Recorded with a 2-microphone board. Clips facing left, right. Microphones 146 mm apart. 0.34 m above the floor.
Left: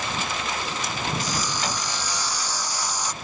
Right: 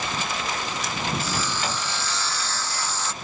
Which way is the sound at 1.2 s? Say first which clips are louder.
Even; 15° left (ahead or behind).